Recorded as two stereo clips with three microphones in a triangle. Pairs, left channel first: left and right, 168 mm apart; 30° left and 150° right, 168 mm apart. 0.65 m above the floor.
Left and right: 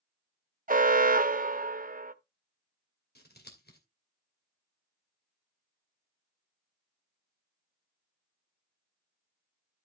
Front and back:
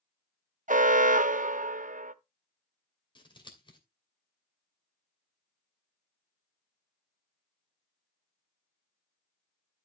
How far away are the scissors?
About 2.5 m.